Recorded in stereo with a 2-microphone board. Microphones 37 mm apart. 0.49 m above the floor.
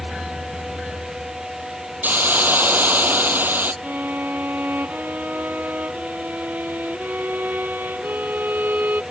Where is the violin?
60° right (ahead or behind).